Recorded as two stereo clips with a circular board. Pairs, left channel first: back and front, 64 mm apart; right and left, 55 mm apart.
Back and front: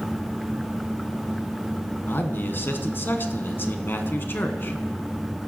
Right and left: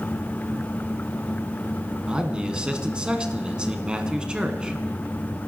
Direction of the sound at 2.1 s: 150° left.